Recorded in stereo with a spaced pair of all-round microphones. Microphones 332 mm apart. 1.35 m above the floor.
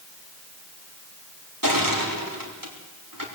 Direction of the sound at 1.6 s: 80° right.